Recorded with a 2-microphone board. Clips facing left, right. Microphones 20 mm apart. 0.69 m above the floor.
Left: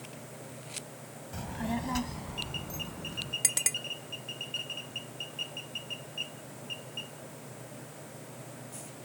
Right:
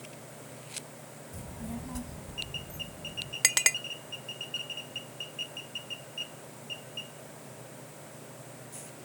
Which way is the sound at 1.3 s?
45° left (ahead or behind).